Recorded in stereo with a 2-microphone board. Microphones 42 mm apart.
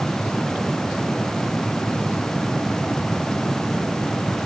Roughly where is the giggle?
I don't hear a giggle.